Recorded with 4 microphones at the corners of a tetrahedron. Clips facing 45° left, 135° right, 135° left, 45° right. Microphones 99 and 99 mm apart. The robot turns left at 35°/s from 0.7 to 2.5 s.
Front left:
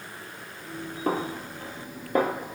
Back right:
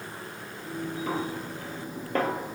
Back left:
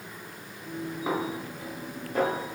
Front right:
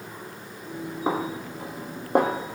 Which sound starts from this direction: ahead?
A snare drum, at 1.1 s.